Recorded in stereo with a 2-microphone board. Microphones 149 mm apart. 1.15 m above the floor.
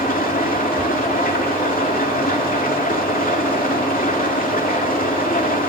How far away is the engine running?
About 2.5 m.